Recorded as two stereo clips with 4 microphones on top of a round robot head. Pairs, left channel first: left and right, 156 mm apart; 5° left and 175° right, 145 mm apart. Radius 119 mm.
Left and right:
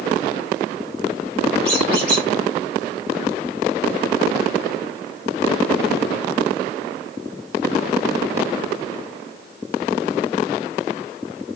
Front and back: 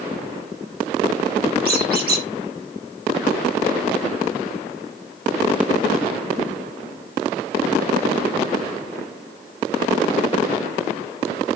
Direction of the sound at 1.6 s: 175° left.